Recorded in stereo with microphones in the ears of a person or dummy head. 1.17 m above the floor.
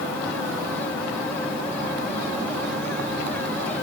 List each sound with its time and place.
Only background noise.